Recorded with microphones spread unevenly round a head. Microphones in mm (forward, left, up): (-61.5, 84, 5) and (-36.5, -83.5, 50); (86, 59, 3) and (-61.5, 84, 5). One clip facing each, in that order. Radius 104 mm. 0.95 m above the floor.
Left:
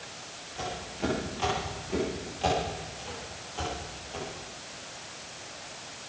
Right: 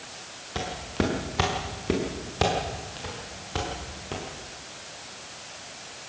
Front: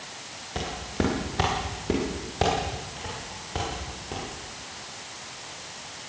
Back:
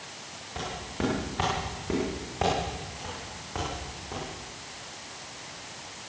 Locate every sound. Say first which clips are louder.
0.6 s footsteps: right 6 dB, front 4 dB; 70° right, 6 m; by 4.2 s 80° right, 8 m